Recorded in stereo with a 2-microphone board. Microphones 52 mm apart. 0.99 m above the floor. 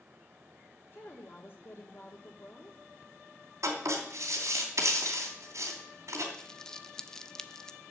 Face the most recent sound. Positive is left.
turn(degrees=10)  # may be behind; listen again after turning